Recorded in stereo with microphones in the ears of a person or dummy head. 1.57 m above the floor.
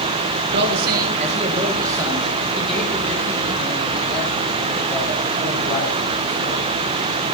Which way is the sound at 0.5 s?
60° right (ahead or behind).